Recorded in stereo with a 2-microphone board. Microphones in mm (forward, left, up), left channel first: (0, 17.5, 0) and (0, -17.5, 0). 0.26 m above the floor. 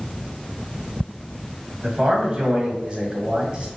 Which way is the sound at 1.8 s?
30° right (ahead or behind).